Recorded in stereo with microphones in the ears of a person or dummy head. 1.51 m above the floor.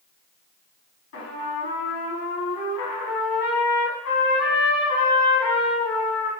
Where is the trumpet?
65° left (ahead or behind), 1.0 m.